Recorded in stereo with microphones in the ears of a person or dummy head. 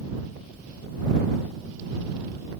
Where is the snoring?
No snoring in this recording.